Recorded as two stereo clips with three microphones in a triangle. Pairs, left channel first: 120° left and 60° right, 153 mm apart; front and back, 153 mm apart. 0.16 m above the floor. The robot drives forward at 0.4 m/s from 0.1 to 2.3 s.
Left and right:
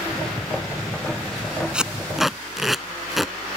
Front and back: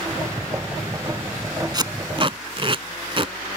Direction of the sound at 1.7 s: 140° right.